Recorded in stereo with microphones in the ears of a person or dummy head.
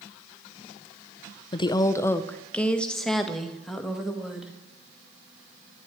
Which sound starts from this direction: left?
A woman speaking, at 1.5 s.